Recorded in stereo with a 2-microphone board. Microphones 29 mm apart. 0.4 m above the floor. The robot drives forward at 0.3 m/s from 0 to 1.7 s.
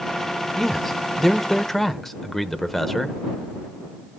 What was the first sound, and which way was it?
A man speaking, 15° left (ahead or behind).